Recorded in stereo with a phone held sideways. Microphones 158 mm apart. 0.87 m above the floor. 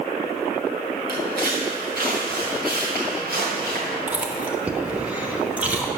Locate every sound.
1.1 s footsteps: 75° right (ahead or behind), 3 m
4.1 s chewing: 10° right (ahead or behind), 1.0 m